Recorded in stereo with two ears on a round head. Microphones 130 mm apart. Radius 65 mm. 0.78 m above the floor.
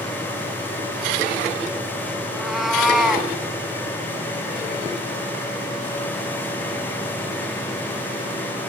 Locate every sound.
2.2 s a cat meowing: centre (ahead or behind), 3 m